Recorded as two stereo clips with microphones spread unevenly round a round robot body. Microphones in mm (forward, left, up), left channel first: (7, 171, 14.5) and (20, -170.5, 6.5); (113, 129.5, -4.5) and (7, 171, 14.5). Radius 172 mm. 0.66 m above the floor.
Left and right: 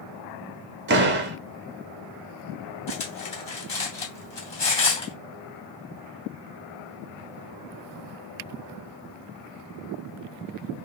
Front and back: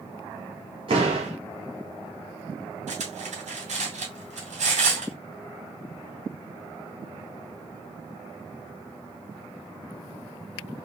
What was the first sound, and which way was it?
A door slam, 140° right.